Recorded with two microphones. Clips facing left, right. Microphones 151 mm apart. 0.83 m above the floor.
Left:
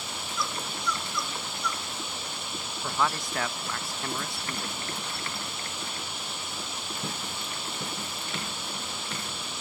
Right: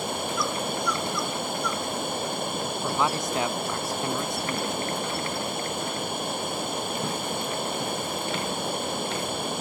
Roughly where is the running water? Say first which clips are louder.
Right 7 dB; right.